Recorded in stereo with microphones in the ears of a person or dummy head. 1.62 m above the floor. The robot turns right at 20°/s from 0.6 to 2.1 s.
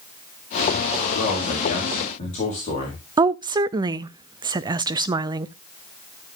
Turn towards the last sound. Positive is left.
turn(degrees=-25)  # may be behind; listen again after turning